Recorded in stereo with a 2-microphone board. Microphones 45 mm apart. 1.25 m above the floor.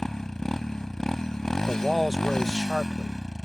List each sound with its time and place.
0.0 s a motorcycle: 10° left (ahead or behind)
1.7 s a man speaking: centre (ahead or behind)